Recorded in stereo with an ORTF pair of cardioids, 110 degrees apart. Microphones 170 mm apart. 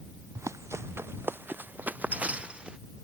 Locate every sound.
0.3 s running footsteps: 15° right; by 2.8 s 5° right